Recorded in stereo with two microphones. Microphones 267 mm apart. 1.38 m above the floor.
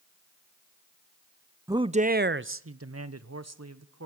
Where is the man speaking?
10° right (ahead or behind), 0.5 m; by 4.1 s 75° right (ahead or behind), 1.3 m.